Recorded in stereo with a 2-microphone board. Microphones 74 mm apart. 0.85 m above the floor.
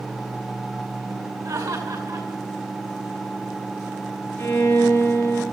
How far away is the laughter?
About 7.5 m.